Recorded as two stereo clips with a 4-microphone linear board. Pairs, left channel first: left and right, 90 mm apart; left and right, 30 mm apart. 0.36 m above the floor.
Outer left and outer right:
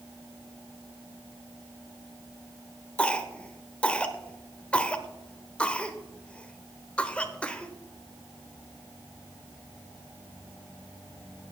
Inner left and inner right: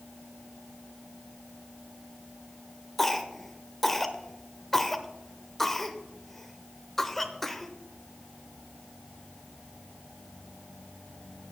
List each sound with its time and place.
3.0 s a cough: 10° left (ahead or behind), 0.8 m